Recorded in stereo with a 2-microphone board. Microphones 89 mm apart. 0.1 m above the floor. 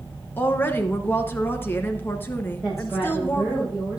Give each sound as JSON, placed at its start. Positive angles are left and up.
{"t": 0.4, "sound": "a woman speaking", "side_deg": 25, "distance_m": 1.1}
{"t": 2.6, "sound": "a woman speaking", "side_deg": -5, "distance_m": 8.5}